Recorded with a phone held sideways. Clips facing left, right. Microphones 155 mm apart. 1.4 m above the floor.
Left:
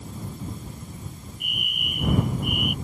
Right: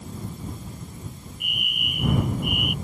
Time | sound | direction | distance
1.4 | a fire alarm | 45° left (ahead or behind) | ?